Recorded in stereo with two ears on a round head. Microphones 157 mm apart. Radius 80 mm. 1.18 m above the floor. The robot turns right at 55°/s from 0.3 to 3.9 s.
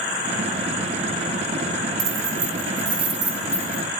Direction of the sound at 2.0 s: 85° right.